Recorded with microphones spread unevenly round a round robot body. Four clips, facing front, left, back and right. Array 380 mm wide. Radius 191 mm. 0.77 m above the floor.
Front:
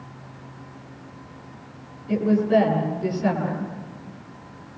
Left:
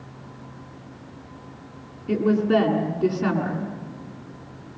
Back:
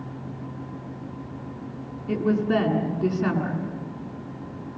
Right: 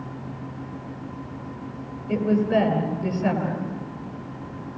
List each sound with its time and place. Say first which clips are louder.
2.1 s a woman speaking: left 1 dB, front 3 dB; 140° left, 8 m